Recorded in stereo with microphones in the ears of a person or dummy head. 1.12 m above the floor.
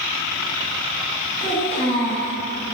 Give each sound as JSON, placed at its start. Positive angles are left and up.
{"t": 1.4, "sound": "a child speaking", "side_deg": 60, "distance_m": 1.4}